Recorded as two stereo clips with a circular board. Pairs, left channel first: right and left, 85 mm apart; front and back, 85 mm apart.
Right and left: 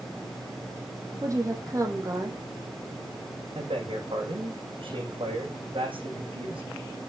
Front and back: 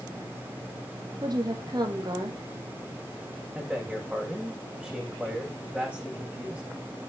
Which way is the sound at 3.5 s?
105° left.